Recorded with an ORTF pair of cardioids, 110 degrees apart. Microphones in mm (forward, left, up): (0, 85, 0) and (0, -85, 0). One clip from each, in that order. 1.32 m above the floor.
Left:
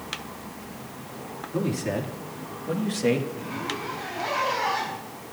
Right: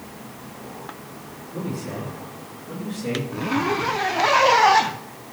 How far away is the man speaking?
About 3 m.